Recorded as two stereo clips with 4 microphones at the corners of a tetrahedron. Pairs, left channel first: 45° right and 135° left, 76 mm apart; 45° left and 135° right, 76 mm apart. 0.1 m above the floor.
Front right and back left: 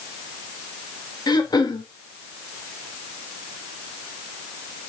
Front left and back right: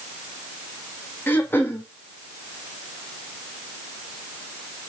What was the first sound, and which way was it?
Throat clearing, 20° right.